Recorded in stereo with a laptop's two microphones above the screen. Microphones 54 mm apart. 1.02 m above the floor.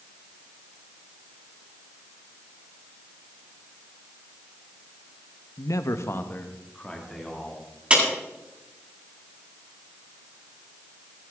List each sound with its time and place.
5.6 s a man speaking: 75° left (ahead or behind), 1.0 m; by 7.7 s 5° left (ahead or behind), 2.5 m
7.9 s a clap: 25° right (ahead or behind), 9 m